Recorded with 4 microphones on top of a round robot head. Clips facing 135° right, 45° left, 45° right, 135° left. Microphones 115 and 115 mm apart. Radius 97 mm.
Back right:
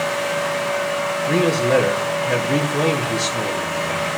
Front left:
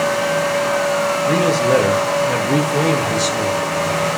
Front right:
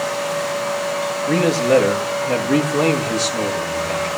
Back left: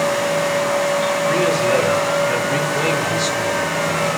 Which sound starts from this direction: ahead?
A man speaking, at 1.3 s.